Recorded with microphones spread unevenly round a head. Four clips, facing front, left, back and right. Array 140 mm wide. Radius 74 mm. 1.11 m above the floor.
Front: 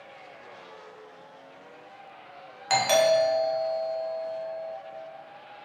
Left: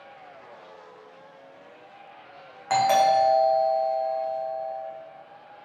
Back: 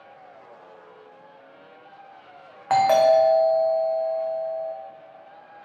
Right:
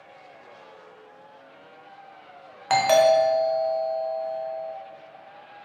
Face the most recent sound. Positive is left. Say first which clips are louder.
# right 2 dB, back 5 dB
turn(degrees=-150)